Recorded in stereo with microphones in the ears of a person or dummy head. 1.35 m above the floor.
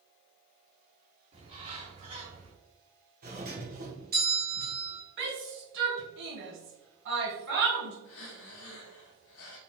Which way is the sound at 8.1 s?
60° left (ahead or behind).